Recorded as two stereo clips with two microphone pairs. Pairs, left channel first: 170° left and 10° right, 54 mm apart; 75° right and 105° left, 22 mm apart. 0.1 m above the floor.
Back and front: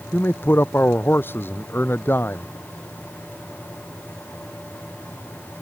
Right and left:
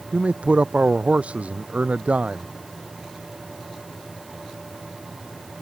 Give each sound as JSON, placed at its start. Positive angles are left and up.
{"t": 0.1, "sound": "a man speaking", "azimuth_deg": 120}